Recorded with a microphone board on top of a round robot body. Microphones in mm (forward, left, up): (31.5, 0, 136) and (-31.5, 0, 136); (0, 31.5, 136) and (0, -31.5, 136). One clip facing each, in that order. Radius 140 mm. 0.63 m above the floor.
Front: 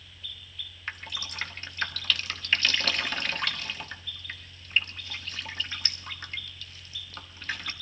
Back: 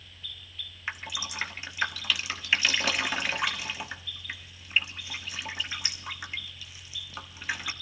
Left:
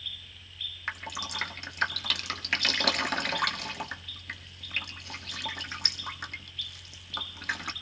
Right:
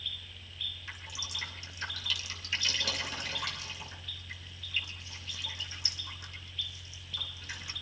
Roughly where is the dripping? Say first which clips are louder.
Back 2 dB, left 8 dB; left.